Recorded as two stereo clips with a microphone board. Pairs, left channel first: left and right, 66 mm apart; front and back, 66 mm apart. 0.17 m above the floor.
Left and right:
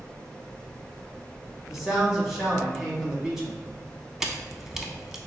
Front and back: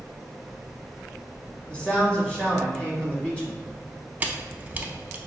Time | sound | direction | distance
1.7 | a man speaking | 20° right | 1.2 m
4.2 | a camera shutter | 165° right | 0.5 m